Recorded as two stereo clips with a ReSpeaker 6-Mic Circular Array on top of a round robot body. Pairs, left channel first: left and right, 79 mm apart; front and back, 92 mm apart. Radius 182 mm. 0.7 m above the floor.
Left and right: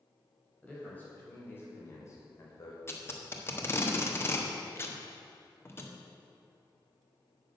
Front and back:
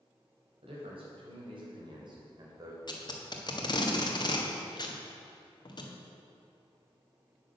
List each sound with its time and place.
0.6 s a man speaking: 165° left, 4.5 m; by 2.8 s 130° left, 3 m
2.9 s tape being pulled: 35° left, 1.6 m